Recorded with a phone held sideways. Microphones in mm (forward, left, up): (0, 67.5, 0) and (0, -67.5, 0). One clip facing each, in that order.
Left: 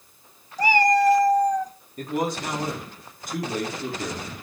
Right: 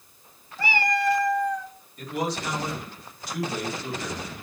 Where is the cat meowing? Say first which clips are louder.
Left 7 dB; 40° left (ahead or behind), 0.7 m.